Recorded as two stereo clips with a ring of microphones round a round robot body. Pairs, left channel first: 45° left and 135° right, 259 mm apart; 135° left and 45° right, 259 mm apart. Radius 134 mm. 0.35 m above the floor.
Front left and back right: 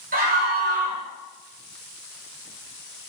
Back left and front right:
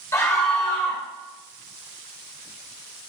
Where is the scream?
155° right, 1.5 m.